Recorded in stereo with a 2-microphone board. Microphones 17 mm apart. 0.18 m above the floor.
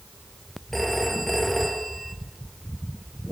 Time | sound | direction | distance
0.7 | a phone ringing | 10° left (ahead or behind) | 3 m